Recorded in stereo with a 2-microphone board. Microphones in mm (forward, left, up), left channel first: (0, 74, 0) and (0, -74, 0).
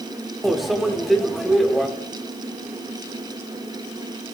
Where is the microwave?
Centre (ahead or behind), 0.7 m.